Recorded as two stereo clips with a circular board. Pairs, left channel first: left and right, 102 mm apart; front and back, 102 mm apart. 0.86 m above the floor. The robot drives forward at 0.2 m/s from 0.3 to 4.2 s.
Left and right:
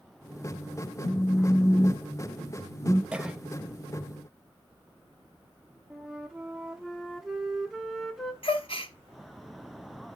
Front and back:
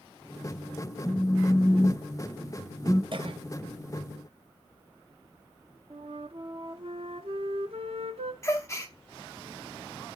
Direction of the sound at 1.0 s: 45° left.